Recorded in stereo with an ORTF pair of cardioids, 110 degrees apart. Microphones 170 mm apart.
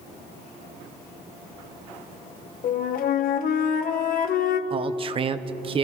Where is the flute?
60° left, 0.9 m.